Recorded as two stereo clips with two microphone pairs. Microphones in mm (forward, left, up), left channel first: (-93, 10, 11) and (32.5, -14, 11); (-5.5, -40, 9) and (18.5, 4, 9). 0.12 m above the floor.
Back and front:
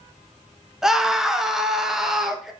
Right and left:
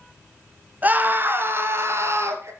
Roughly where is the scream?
Left.